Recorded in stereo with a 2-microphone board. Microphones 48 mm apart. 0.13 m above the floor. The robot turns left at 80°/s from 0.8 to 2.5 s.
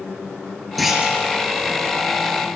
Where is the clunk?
Straight ahead, 1.6 m; by 1.2 s 30° right, 1.6 m.